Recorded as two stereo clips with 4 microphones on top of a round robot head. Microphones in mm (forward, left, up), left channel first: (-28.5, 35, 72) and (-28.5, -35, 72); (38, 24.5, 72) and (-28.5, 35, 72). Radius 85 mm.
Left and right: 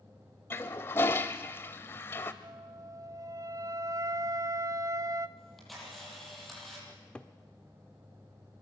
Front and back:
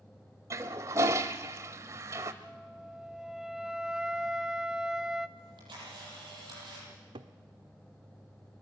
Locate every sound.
0.5 s a toilet flushing: 140° left, 0.6 m
2.4 s a flute: 110° right, 1.3 m
5.4 s a camera shutter: straight behind, 9.5 m
6.9 s a cupboard door: 165° left, 0.9 m